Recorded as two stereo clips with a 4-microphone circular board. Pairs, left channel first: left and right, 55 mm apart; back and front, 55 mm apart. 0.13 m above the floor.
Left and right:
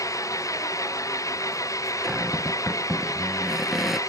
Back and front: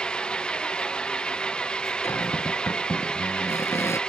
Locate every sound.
0.0 s an engine running: 105° left
2.0 s a cupboard door: 175° right